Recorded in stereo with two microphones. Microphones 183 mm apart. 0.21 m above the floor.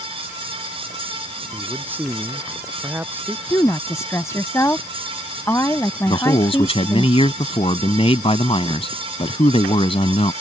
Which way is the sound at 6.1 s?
30° left (ahead or behind).